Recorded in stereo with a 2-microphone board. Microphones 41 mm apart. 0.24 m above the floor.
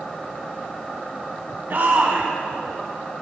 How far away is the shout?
About 1.6 m.